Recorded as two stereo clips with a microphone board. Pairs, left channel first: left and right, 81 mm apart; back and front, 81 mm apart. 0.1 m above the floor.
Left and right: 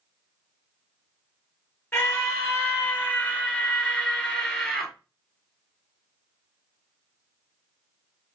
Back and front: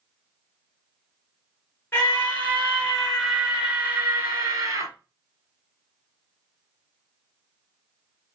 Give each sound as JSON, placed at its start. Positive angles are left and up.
{"t": 1.9, "sound": "a scream", "azimuth_deg": 140, "distance_m": 1.4}